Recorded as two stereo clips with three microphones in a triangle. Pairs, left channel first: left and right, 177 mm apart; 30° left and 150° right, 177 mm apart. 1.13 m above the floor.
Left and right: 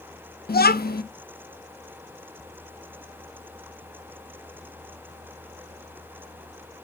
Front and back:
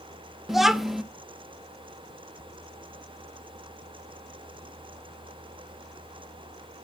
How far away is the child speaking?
About 1.0 m.